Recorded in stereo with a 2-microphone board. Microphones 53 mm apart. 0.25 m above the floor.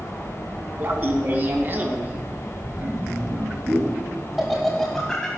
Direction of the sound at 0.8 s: 40° right (ahead or behind).